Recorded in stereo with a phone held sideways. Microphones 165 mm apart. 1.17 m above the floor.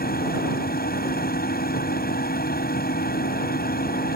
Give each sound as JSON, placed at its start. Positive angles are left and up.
{"t": 0.0, "sound": "a machine running", "side_deg": 70}